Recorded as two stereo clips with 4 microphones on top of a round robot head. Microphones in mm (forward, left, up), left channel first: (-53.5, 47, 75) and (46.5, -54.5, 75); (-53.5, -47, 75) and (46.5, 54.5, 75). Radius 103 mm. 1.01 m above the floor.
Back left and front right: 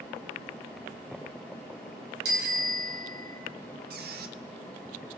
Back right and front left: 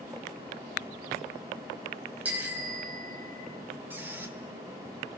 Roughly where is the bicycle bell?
Ahead right.